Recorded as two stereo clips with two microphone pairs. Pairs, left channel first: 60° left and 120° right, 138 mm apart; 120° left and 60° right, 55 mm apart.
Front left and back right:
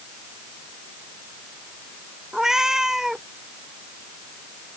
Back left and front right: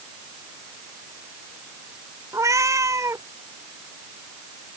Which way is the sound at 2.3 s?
35° right.